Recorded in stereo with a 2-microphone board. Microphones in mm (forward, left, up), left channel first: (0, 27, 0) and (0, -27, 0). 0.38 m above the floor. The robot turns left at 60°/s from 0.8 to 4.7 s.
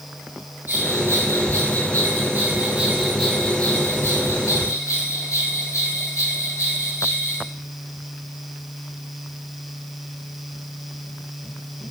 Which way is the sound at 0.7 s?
45° right.